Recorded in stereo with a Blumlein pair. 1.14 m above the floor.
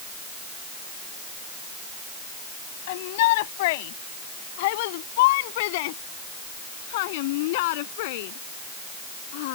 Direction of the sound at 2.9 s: 50° left.